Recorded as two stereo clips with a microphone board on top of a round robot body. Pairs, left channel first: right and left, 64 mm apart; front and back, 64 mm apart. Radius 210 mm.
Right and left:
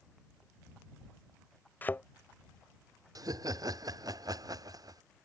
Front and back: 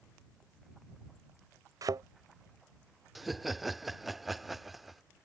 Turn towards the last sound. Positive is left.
turn(degrees=90)